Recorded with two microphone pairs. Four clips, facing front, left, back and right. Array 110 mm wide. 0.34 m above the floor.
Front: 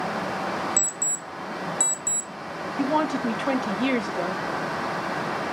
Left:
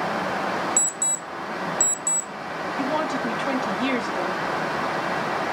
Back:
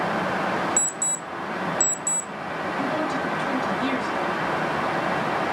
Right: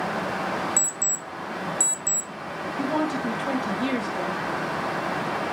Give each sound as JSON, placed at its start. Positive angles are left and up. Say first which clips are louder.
{"t": 0.8, "sound": "an alarm clock", "louder": "left 2 dB, back 3 dB", "azimuth_deg": 60, "distance_m": 0.9}
{"t": 2.8, "sound": "a woman speaking", "louder": "even, front 4 dB", "azimuth_deg": 30, "distance_m": 2.0}